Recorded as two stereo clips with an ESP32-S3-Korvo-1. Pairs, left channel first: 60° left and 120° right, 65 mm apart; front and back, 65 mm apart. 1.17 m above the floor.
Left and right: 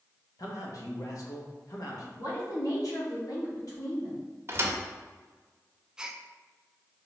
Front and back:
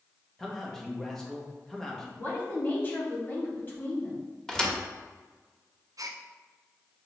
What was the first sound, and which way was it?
A man speaking, 85° left.